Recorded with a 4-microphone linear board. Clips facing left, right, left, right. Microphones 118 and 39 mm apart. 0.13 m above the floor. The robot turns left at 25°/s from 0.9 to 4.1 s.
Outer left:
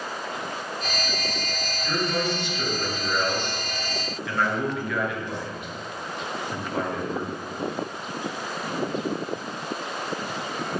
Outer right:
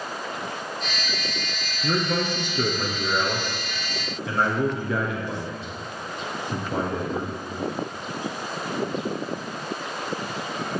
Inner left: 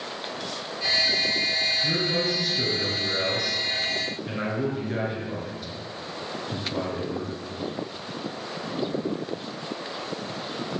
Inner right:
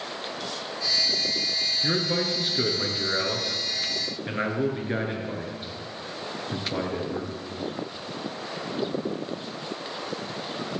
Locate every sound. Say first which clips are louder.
1.8 s a man speaking: outer right 2 dB, inner left 1 dB; 85° right, 2 m; by 7.3 s 140° right, 2 m